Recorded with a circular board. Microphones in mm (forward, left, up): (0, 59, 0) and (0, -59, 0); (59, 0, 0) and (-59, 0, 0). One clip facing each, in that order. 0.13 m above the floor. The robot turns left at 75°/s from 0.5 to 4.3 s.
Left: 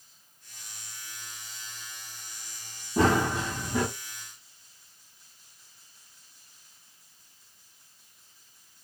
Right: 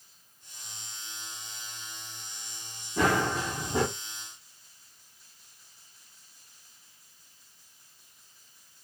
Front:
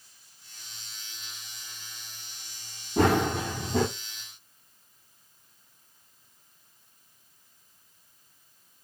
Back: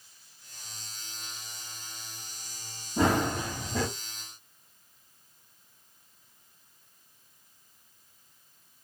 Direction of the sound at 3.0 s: 35° left.